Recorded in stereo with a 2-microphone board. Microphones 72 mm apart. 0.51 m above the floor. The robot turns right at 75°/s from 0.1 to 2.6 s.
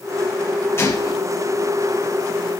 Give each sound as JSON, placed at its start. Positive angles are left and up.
{"t": 0.8, "sound": "a gunshot", "azimuth_deg": 30, "distance_m": 1.3}